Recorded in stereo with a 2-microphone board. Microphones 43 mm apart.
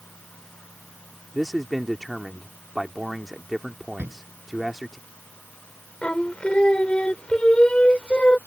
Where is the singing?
25° left (ahead or behind).